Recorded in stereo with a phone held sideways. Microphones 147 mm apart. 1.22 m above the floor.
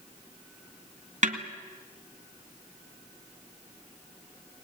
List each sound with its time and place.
1.2 s a snare drum: 60° right (ahead or behind), 1.9 m